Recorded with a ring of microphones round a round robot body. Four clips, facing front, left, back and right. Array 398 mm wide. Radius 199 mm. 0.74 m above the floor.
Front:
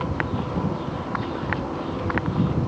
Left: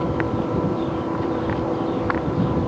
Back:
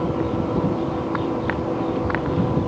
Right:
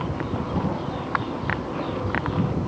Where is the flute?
I don't hear a flute.